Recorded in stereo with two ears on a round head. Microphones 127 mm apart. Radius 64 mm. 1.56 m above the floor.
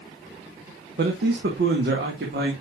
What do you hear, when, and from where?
1.0 s a man speaking: 70° right (ahead or behind), 1.4 m